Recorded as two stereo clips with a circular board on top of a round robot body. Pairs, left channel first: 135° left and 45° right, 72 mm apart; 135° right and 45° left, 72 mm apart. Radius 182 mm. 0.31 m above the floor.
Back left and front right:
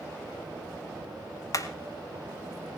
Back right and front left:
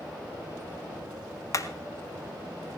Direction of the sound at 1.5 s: Straight behind.